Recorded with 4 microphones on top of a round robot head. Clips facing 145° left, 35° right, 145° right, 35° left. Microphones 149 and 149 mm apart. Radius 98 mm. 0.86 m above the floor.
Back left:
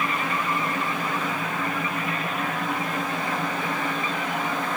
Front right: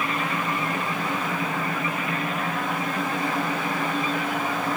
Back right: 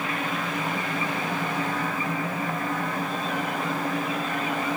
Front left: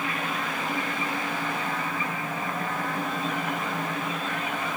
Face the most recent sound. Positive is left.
No sound to turn to.